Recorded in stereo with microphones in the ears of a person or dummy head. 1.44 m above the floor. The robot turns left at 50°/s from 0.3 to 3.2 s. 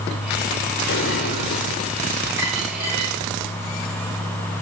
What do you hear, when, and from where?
0.9 s an explosion: 90° left, 1.8 m; by 1.9 s 40° left, 1.8 m
2.4 s a dropped coin: 15° right, 6 m; by 3.1 s 50° right, 6 m